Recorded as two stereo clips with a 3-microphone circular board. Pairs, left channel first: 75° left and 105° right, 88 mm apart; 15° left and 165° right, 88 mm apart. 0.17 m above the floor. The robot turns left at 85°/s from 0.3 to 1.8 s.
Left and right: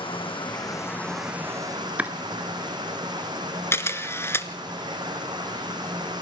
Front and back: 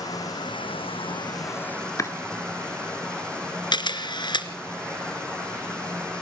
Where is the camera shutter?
20° left, 1.4 m.